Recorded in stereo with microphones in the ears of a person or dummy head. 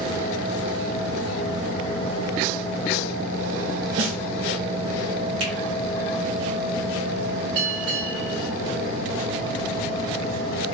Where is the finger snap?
80° right, 1.5 m.